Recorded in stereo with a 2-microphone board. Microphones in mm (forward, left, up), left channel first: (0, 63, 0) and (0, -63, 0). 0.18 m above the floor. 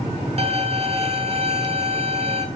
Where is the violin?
55° right (ahead or behind), 1.3 m.